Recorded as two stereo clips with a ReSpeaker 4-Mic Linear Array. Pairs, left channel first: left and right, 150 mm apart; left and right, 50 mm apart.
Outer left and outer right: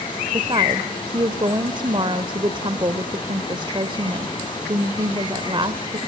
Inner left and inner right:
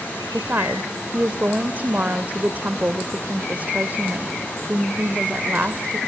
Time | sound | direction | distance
0.3 | a woman speaking | 35° right (ahead or behind) | 1.1 m